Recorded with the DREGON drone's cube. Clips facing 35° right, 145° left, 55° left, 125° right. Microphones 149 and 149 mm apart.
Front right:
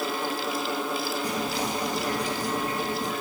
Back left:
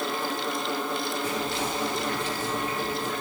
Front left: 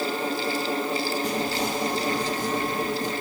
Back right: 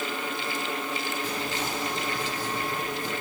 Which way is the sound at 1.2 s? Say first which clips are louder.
Front right 1 dB, front left 5 dB; 15° left.